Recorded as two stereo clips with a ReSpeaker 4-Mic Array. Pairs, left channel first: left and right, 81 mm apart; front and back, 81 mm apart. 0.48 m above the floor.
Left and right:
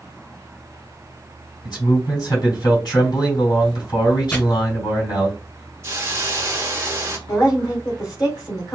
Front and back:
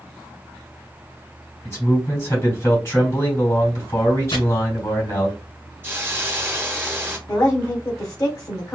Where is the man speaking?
55° left, 3.5 m.